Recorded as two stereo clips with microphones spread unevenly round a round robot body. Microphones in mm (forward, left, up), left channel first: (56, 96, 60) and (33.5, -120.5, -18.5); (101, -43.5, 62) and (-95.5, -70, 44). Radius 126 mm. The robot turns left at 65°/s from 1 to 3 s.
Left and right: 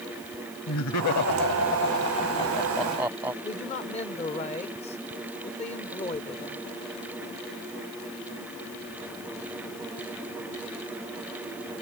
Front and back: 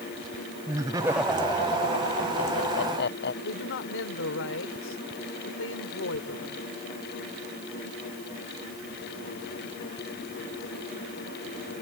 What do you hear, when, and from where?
0.7 s laughter: 115° left; by 3.3 s 15° right
3.4 s a man speaking: 20° left